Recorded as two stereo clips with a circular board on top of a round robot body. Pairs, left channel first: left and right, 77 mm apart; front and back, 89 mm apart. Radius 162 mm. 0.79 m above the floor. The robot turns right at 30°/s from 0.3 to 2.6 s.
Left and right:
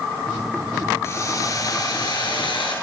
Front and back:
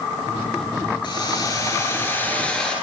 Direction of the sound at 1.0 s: 35° left.